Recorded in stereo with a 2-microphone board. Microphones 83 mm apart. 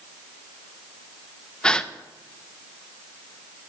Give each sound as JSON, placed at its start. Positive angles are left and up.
{"t": 1.6, "sound": "a gasp", "side_deg": 10, "distance_m": 0.7}